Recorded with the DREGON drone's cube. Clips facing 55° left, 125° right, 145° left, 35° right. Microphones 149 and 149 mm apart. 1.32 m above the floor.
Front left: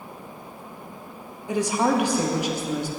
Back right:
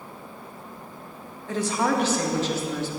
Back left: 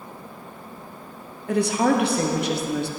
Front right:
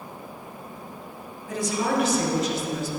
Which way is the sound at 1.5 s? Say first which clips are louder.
Front left 2 dB, back left 6 dB; 130° left.